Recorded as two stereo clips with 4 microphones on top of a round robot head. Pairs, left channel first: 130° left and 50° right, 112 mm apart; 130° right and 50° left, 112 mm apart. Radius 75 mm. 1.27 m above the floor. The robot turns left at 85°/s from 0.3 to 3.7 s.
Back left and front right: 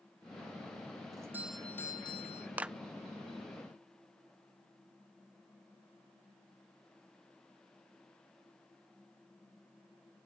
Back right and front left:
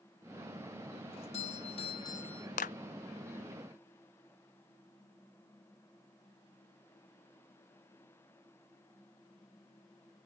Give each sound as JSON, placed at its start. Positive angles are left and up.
{"t": 1.1, "sound": "a doorbell", "azimuth_deg": -105}
{"t": 2.6, "sound": "a clap", "azimuth_deg": -125}